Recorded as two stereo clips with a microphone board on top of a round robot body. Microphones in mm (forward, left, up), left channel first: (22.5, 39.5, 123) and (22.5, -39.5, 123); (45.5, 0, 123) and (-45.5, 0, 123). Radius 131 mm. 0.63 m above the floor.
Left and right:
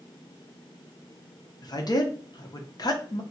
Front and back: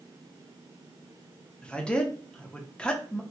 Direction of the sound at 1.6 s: 80° left.